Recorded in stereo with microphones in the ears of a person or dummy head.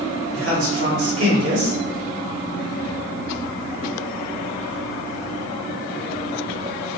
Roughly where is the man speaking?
Right.